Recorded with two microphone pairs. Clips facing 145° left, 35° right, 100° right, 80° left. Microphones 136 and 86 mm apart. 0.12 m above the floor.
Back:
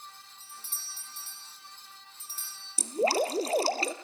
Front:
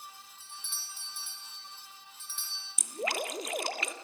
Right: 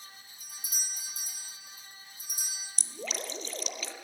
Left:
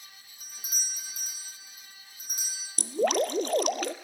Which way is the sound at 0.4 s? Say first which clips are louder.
Even, left 2 dB; 100° left.